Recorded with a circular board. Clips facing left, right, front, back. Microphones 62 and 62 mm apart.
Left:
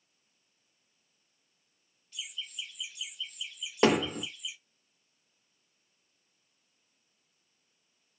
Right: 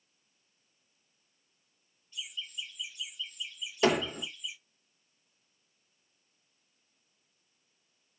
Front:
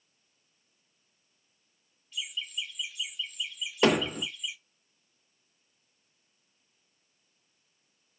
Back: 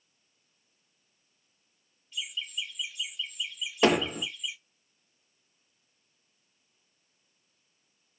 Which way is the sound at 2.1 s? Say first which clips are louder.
Right 1 dB, even; 90° left.